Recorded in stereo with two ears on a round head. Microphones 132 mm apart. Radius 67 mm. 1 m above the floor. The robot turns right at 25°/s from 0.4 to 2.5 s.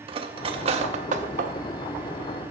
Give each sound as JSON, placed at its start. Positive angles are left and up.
{"t": 0.1, "sound": "cutlery clinking", "side_deg": -40, "distance_m": 0.6}